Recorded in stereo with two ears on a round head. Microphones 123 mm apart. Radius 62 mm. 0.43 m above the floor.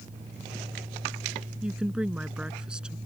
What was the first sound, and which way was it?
A woman speaking, 5° right (ahead or behind).